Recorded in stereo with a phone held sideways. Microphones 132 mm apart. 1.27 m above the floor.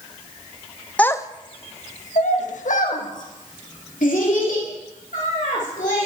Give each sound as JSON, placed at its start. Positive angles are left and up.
{"t": 1.0, "sound": "a child speaking", "side_deg": 10, "distance_m": 0.6}